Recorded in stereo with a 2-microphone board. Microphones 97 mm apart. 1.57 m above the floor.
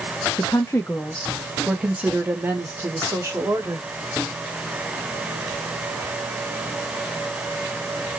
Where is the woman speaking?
40° left (ahead or behind), 0.7 m; by 3.9 s 35° right (ahead or behind), 1.8 m.